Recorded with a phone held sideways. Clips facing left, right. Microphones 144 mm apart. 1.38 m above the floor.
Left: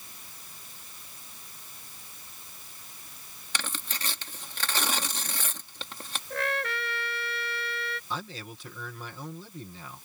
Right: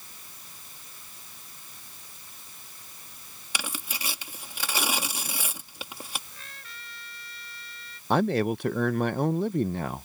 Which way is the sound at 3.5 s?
10° right (ahead or behind).